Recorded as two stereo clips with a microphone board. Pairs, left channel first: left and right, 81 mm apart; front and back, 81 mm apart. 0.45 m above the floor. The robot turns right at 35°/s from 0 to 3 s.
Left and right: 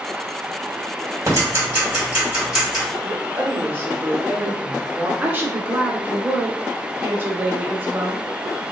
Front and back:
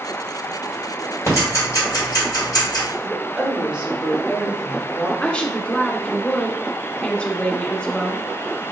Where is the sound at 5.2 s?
60° right, 0.8 m.